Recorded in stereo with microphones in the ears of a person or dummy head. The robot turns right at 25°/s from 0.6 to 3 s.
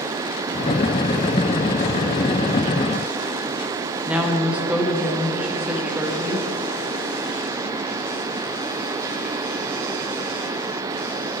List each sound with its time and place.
4.1 s a woman speaking: 10° right (ahead or behind), 1.0 m